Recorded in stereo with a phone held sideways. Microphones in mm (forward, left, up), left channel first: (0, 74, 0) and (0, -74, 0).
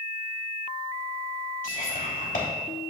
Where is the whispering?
65° left (ahead or behind), 3.5 m.